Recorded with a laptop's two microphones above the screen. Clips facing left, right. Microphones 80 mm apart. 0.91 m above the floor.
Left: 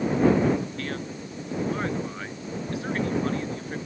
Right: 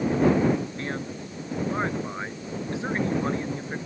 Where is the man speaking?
25° right (ahead or behind).